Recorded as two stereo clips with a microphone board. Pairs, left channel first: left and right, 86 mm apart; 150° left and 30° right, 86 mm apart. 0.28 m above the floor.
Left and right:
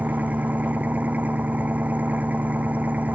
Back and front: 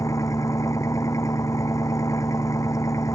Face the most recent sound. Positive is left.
turn(degrees=-160)